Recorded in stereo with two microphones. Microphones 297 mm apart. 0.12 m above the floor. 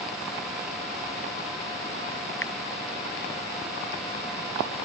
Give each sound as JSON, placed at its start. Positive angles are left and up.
{"t": 2.4, "sound": "a finger snap", "side_deg": 45}